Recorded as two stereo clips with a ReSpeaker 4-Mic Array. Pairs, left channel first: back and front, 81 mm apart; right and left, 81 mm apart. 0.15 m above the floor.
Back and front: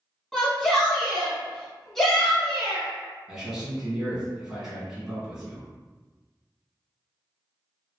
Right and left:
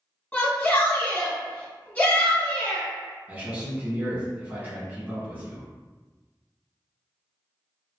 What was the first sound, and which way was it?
A shout, 100° right.